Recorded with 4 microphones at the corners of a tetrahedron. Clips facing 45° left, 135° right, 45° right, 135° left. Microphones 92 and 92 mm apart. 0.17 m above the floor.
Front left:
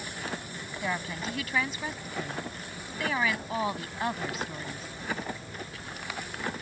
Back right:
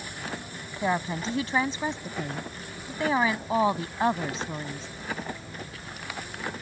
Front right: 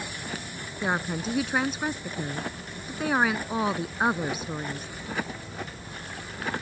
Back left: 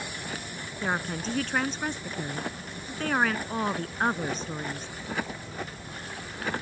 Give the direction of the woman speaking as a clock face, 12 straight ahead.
4 o'clock.